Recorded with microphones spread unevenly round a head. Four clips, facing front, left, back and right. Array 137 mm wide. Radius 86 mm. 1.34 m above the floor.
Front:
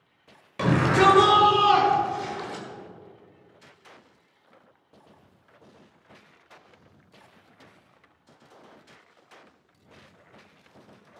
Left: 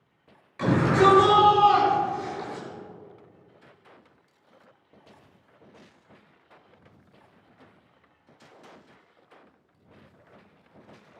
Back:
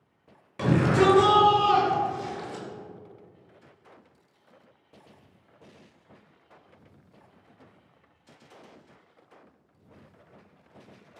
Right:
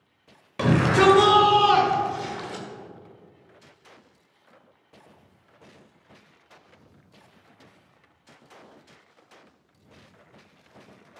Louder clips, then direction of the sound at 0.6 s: Right 1 dB, front 2 dB; 55° right.